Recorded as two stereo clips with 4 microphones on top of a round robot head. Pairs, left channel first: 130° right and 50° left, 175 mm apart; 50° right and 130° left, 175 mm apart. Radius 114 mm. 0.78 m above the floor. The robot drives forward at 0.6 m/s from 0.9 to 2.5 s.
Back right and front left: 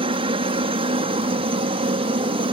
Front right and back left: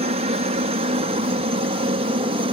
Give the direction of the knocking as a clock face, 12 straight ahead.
I don't hear knocking.